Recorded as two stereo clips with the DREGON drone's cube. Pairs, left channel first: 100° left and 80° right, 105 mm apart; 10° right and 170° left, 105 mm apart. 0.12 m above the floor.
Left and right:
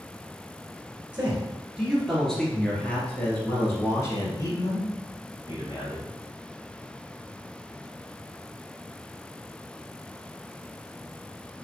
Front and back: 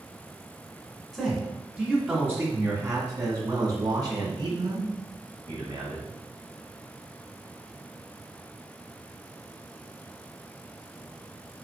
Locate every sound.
1.1 s a man speaking: 115° right, 1.7 m; by 6.1 s 135° left, 3 m